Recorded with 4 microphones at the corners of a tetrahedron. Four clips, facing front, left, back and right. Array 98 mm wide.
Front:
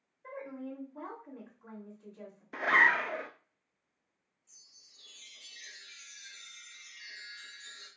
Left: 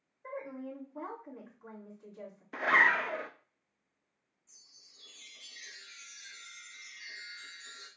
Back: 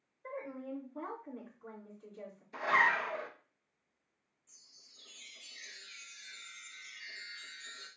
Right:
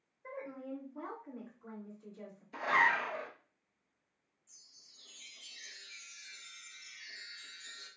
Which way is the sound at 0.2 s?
100° left.